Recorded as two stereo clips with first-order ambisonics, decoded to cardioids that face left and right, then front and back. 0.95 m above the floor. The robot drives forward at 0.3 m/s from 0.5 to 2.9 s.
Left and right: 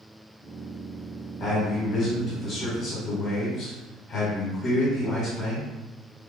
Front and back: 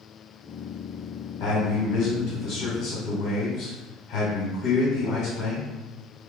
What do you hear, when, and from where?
1.4 s a man speaking: 30° left, 1.4 m; by 5.7 s 45° left, 1.1 m